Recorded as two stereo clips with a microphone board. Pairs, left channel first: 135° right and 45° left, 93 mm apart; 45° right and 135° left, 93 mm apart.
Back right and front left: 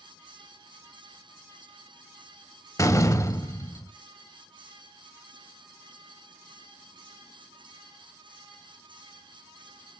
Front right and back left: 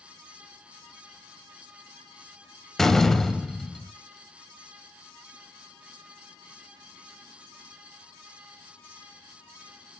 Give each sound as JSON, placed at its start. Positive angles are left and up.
{"t": 2.8, "sound": "a door slam", "azimuth_deg": -130, "distance_m": 0.7}